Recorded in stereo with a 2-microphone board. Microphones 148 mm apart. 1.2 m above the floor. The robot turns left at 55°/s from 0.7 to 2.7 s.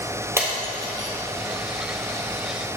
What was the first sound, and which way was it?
Breaking glass, 15° right (ahead or behind).